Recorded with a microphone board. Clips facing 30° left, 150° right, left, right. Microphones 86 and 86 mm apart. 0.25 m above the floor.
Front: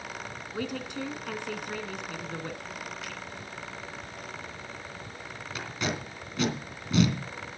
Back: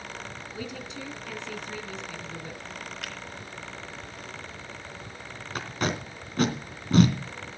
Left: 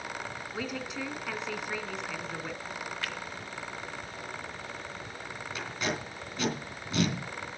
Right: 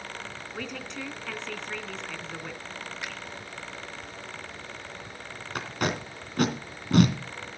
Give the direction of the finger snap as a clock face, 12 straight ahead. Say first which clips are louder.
Back 1 dB, even; 5 o'clock.